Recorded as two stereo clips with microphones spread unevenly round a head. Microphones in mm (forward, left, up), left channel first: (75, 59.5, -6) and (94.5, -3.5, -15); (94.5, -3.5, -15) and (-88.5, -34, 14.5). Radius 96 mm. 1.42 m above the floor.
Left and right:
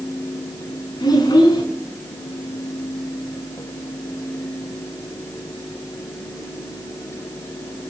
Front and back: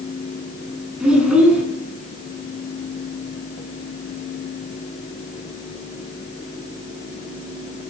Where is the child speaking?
105° left, 8 m.